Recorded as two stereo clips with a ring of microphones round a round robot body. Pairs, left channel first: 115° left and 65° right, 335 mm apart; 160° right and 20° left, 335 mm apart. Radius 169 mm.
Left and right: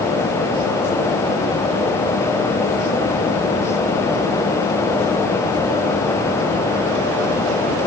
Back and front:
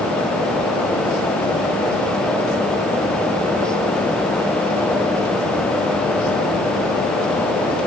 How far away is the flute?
No flute in this recording.